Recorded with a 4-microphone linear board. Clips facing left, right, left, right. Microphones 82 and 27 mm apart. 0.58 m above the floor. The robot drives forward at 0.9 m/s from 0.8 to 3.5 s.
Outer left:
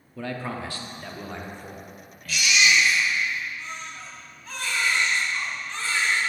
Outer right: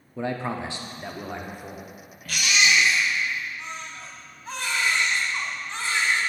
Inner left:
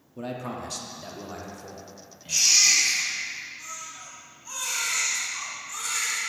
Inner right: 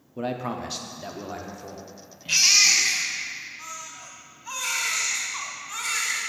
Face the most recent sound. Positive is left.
turn(degrees=-20)  # may be behind; listen again after turning